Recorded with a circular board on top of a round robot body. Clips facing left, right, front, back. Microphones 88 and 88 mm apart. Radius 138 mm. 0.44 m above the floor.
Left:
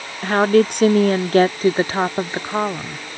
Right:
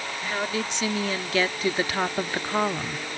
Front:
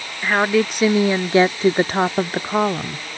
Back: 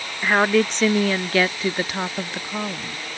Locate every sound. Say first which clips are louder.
0.2 s a woman speaking: left 15 dB, even; 95° left; by 3.0 s 10° left